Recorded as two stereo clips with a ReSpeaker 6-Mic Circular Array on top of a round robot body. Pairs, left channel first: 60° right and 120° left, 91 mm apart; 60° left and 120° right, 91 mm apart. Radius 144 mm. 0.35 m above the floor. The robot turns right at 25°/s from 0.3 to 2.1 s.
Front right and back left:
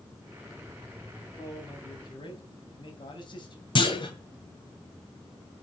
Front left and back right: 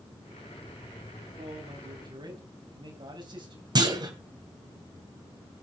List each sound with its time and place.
1.4 s a man speaking: 105° right, 4 m; by 3.6 s 90° right, 4 m
3.8 s a clunk: 85° right, 2.5 m